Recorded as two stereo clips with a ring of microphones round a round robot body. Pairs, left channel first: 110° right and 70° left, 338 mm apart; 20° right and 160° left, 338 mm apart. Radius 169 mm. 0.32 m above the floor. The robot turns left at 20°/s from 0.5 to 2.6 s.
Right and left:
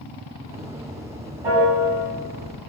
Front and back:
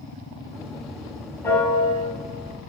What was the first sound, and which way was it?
A piano, 60° left.